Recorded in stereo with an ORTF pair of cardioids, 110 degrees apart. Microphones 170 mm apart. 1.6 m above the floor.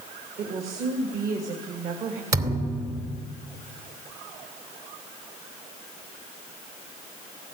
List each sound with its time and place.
0.4 s a woman speaking: 65° right, 3 m
2.3 s a thud: 65° right, 3 m